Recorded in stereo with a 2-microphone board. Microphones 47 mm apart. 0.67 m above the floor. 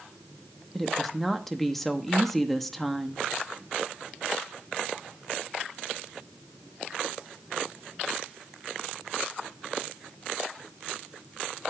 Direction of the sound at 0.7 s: 5° left (ahead or behind).